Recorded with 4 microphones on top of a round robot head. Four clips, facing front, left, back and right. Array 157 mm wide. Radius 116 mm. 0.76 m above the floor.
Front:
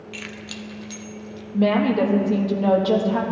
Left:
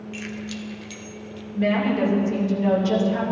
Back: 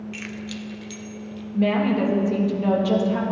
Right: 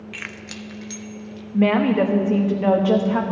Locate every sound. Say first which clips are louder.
0.1 s keys jangling: left 4 dB, back 3 dB; 70° right, 0.5 m; by 1.4 s 35° right, 1.0 m
1.5 s a woman speaking: right 4 dB, front 2 dB; 60° right, 1.4 m